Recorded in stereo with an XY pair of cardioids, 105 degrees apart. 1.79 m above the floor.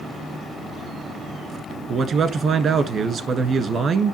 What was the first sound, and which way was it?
A man speaking, 55° right.